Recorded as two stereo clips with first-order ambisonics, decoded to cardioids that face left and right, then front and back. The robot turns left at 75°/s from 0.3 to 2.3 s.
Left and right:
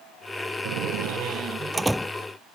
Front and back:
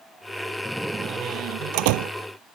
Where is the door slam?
85° right; by 2.1 s 165° left.